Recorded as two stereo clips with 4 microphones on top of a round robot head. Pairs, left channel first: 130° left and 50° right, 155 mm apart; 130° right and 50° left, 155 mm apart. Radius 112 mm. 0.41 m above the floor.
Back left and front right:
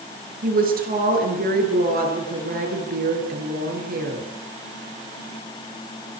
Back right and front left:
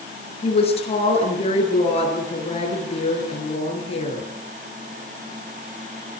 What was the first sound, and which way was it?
A woman speaking, 75° right.